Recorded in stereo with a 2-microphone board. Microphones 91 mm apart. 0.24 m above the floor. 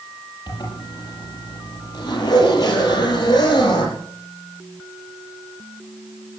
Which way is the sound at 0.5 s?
45° left (ahead or behind).